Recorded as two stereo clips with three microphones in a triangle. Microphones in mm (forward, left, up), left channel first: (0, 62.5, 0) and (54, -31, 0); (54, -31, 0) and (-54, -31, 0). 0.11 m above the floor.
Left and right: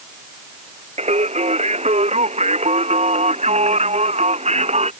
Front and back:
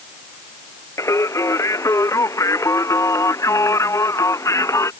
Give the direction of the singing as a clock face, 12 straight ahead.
2 o'clock.